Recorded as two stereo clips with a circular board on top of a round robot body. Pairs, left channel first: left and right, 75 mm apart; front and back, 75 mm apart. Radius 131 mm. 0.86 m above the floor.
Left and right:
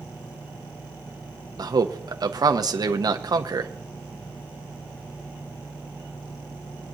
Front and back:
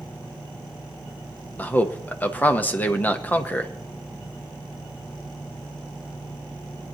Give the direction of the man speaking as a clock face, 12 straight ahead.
2 o'clock.